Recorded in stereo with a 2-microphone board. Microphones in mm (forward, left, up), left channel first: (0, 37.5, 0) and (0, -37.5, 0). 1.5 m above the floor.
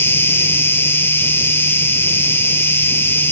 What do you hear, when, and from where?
0.0 s an insect: 35° left (ahead or behind)